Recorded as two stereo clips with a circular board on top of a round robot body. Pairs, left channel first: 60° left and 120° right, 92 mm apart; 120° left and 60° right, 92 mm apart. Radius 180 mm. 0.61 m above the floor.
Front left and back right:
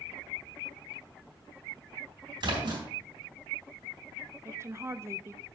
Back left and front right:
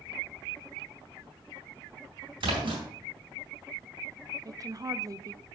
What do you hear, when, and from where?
2.4 s a splash: 85° right, 3.5 m
4.5 s a woman speaking: 75° right, 0.7 m